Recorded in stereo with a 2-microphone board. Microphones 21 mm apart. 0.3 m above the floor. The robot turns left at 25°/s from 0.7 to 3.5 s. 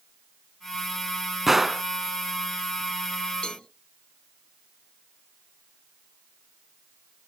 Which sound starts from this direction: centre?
A gunshot, at 1.5 s.